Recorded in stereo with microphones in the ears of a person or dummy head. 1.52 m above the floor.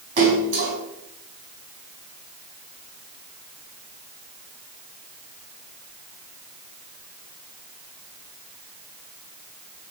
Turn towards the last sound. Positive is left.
turn(degrees=-55)  # may be behind; listen again after turning